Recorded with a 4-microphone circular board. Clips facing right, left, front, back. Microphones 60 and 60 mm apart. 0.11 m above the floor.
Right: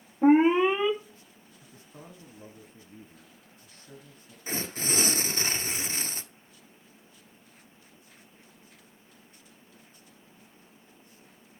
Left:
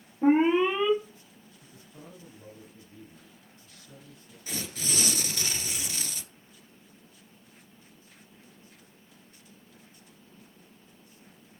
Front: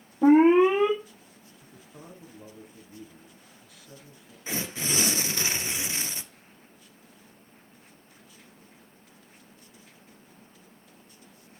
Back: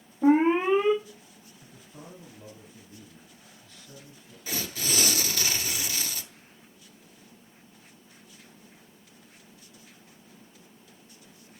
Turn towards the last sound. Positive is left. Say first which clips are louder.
# right 3 dB, front 1 dB
turn(degrees=-55)